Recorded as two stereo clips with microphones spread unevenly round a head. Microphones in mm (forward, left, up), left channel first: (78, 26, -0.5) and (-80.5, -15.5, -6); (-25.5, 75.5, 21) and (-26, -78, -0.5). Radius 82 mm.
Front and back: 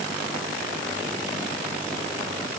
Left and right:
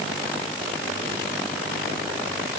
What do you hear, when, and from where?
Only background noise.